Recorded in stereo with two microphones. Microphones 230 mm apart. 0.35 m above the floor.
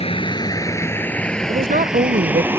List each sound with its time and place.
0.0 s a vehicle: 25° left (ahead or behind); by 2.6 s 10° right (ahead or behind)
1.5 s a woman speaking: 40° right (ahead or behind)